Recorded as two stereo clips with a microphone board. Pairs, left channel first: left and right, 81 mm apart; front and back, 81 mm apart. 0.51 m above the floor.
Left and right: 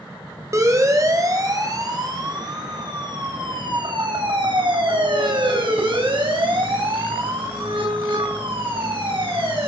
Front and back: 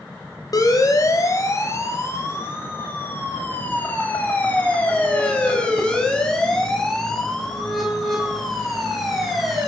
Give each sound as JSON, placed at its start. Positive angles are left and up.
{"t": 0.5, "sound": "a siren", "azimuth_deg": -40, "distance_m": 3.0}